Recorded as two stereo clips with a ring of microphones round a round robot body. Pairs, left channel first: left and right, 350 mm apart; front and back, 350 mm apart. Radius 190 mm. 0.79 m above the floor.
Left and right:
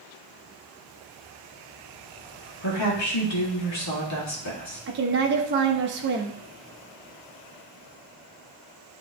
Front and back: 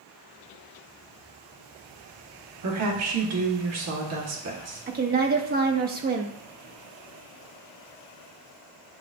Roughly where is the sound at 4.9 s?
Behind right.